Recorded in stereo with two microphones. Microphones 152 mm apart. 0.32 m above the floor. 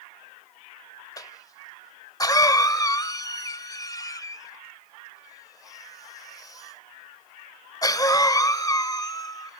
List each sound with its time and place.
1.2 s a cough: 25° left (ahead or behind), 1.0 m